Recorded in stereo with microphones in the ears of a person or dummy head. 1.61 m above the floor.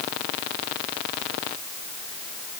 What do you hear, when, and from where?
Only background noise.